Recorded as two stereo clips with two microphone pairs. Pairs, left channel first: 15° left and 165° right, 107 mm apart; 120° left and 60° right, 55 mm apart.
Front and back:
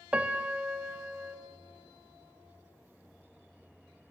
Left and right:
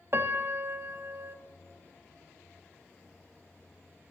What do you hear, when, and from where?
0.1 s a piano: 90° right, 0.8 m